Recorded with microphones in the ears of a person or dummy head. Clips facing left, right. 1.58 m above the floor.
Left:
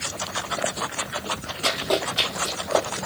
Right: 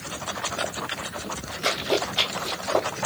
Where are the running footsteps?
5° right (ahead or behind), 3 m; by 2.9 s 25° left (ahead or behind), 2.5 m.